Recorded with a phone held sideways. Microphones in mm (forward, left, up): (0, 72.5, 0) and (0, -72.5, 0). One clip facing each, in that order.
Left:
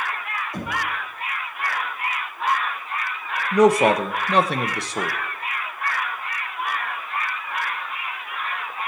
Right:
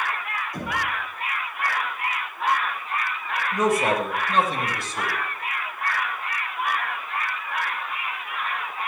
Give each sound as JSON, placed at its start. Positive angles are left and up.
{"t": 0.5, "sound": "knocking", "side_deg": 30, "distance_m": 5.0}
{"t": 3.5, "sound": "a man speaking", "side_deg": 80, "distance_m": 1.0}